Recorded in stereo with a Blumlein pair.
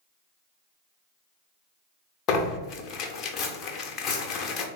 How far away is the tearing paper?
About 0.6 m.